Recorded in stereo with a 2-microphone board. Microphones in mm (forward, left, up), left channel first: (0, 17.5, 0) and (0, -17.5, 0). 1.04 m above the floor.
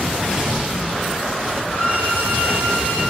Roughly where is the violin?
Left.